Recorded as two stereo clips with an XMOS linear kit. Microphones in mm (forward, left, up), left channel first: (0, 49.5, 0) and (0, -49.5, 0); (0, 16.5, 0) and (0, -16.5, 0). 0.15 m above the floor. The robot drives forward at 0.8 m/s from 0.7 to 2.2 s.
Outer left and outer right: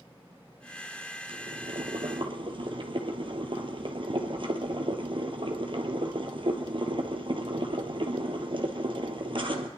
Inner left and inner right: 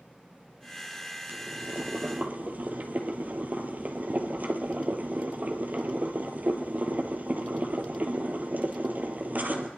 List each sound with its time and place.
1.3 s boiling: 70° right (ahead or behind), 1.1 m; by 9.7 s 60° right (ahead or behind), 1.2 m